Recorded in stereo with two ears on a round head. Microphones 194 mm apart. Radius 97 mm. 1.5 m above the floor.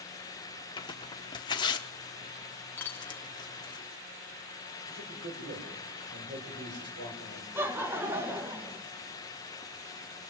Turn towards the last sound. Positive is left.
turn(degrees=-10)  # may be behind; listen again after turning